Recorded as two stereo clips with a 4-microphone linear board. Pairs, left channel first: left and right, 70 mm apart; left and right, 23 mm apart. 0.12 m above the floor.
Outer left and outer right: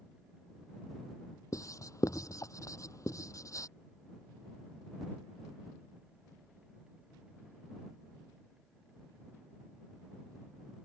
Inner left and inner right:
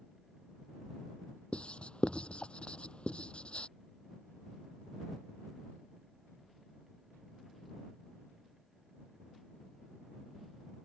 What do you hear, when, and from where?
1.5 s writing: 50° left (ahead or behind)